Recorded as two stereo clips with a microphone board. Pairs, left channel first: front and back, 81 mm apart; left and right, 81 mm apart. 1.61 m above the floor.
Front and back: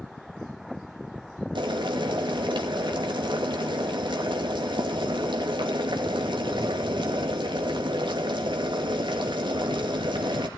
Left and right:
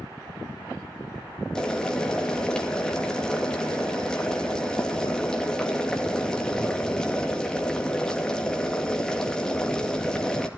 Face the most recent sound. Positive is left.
turn(degrees=170)